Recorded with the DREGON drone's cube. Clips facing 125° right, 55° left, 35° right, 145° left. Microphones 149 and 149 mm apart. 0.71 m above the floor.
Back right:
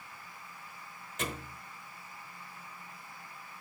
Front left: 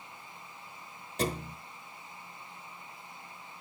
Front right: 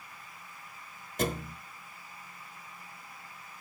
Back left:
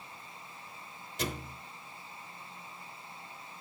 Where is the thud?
5° left, 1.0 m.